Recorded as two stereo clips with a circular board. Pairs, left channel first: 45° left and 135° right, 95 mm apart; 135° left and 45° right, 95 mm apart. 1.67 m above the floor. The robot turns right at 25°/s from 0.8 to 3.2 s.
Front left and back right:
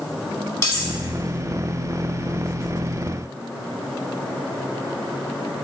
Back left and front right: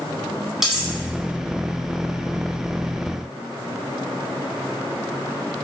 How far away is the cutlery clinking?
About 1.0 m.